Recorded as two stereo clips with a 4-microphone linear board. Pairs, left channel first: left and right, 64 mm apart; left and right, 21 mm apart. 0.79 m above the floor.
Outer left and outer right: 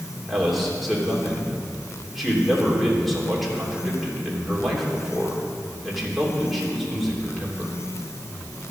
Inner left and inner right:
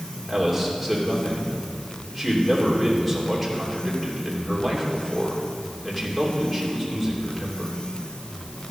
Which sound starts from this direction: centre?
A man speaking, at 0.3 s.